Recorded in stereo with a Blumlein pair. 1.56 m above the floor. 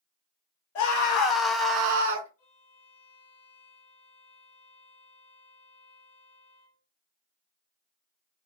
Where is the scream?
45° left, 1.0 m; by 2.3 s 70° right, 0.8 m.